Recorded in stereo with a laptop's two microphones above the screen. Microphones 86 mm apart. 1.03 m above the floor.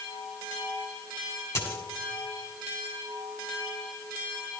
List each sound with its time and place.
1.6 s a dropped coin: 30° left (ahead or behind), 1.5 m